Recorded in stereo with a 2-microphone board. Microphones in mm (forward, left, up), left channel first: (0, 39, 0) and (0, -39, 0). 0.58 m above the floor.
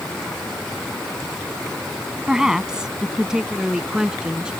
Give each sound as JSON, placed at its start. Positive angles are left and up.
{"t": 2.3, "sound": "a woman speaking", "side_deg": -10}